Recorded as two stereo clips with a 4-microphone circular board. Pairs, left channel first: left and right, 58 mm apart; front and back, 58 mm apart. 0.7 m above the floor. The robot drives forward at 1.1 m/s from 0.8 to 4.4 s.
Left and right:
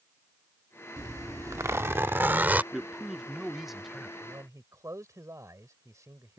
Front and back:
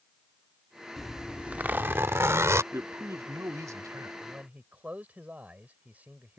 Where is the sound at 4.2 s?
115° right; by 6.4 s 120° right.